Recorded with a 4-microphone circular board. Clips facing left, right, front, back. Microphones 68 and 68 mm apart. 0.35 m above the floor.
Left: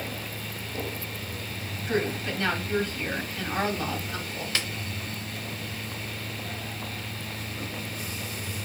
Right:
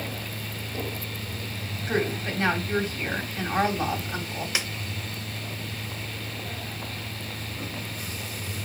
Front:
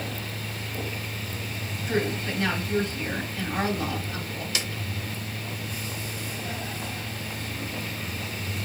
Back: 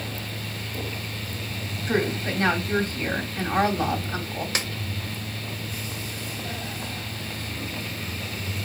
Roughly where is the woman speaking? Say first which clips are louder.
Right 1 dB, back 2 dB; behind right.